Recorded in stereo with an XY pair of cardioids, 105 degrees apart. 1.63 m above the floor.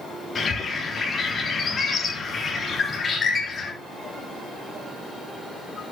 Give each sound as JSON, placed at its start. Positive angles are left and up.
{"t": 0.3, "sound": "a bird", "azimuth_deg": 40, "distance_m": 3.5}